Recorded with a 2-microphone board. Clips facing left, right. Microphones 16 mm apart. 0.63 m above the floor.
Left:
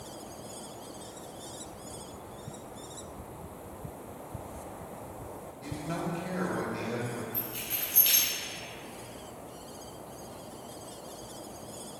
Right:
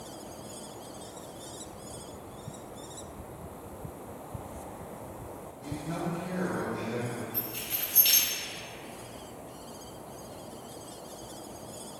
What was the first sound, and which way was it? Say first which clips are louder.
A man speaking: even; 40° left (ahead or behind).